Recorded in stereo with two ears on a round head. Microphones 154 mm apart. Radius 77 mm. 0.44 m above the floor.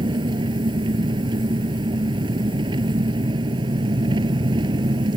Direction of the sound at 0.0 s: 25° right (ahead or behind).